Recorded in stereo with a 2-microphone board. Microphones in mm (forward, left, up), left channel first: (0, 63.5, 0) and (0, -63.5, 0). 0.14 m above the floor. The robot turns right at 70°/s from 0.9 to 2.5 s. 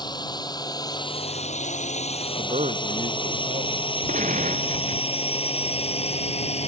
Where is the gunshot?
80° right.